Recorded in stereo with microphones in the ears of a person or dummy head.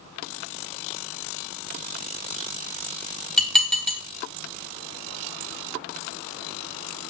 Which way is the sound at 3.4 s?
Centre (ahead or behind).